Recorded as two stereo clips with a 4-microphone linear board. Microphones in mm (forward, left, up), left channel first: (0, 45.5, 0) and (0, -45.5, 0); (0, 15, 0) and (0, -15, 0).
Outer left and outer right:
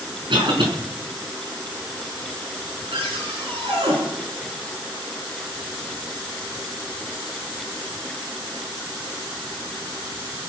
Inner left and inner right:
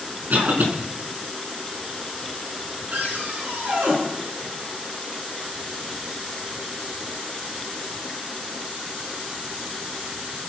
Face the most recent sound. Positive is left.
turn(degrees=-80)